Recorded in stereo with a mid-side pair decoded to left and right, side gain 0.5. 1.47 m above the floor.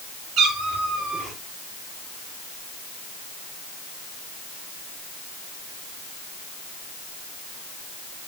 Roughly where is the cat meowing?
Ahead right.